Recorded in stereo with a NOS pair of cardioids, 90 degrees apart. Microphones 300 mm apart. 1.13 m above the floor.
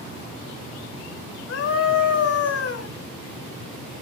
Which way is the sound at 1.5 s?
55° left.